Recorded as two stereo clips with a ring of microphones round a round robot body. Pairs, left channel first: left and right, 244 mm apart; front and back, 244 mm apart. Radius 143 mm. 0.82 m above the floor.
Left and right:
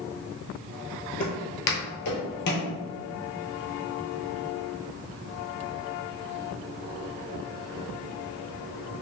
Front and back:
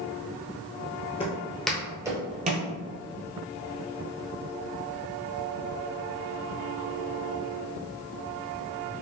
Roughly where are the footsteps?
Ahead left.